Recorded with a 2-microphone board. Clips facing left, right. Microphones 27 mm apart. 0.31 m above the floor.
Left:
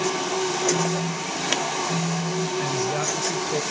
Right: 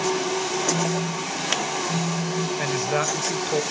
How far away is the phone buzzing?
About 0.7 m.